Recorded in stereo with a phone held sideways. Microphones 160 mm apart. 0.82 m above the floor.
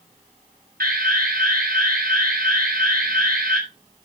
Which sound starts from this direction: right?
An alarm, at 0.8 s.